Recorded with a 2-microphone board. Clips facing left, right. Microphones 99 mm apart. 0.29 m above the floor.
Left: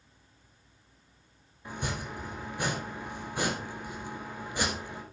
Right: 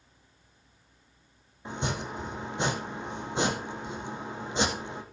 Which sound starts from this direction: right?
Chopping, at 1.6 s.